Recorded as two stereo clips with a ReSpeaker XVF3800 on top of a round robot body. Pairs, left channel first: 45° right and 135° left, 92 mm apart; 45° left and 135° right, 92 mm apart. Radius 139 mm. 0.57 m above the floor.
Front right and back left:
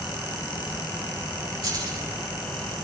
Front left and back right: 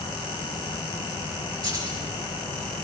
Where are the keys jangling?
175° right, 9 m.